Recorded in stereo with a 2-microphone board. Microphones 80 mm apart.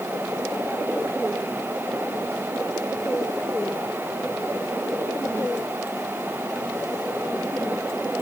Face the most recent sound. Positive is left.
No sound to turn to.